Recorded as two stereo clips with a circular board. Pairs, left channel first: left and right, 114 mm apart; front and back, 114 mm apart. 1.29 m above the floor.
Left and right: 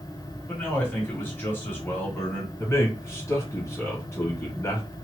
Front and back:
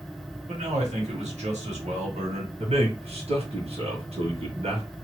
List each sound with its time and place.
0.5 s a man speaking: 165° left, 1.6 m
2.6 s a man speaking: 160° left, 1.6 m